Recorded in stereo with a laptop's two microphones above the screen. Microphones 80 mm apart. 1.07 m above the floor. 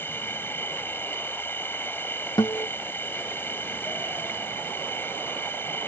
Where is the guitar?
60° left (ahead or behind).